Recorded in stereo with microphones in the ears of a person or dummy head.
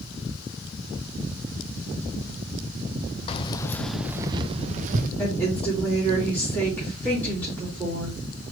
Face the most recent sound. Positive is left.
turn(degrees=5)  # may be behind; listen again after turning